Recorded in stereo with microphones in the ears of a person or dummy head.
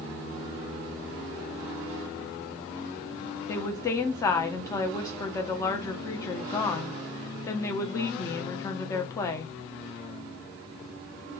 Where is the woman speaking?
20° left (ahead or behind), 0.5 m.